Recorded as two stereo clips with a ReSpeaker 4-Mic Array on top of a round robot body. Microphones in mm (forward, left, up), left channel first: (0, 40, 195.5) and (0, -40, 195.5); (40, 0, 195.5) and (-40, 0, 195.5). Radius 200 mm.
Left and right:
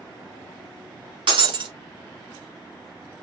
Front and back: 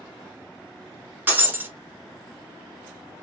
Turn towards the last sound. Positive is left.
turn(degrees=-110)